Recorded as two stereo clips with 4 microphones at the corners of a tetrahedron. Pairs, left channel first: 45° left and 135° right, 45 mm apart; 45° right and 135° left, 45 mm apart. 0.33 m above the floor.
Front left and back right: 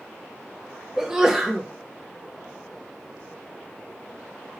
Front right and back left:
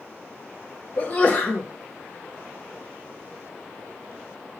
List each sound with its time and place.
1.0 s a sneeze: 65° right, 1.4 m